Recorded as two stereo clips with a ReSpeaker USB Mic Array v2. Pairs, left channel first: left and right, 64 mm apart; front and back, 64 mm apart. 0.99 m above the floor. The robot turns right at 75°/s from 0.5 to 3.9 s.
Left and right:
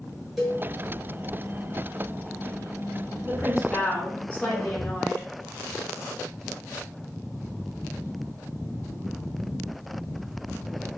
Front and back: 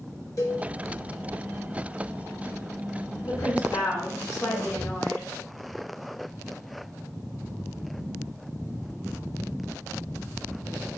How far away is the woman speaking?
About 1.3 m.